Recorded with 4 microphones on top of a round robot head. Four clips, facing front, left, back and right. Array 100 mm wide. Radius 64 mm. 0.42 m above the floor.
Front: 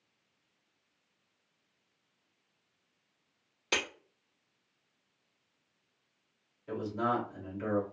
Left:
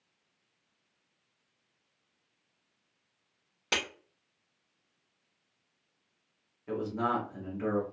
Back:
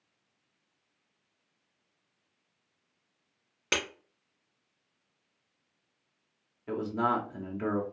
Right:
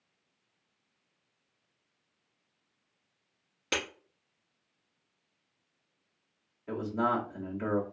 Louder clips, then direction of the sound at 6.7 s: Right 1 dB, back 3 dB; 170° right.